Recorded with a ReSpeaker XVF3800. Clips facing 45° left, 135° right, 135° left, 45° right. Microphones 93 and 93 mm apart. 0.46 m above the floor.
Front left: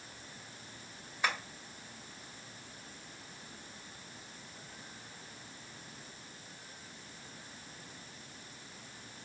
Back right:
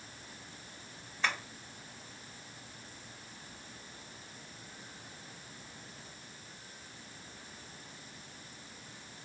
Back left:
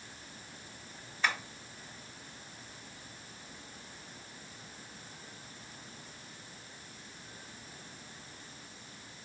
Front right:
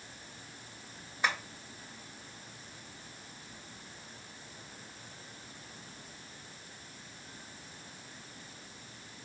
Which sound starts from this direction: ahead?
Tapping, at 1.2 s.